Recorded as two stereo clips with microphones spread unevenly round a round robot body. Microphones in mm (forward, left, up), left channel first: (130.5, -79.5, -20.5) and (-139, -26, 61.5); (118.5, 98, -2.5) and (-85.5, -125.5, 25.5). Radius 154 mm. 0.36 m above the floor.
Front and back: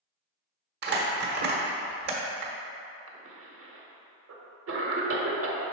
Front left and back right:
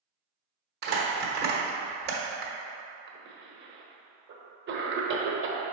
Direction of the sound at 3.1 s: 165° right.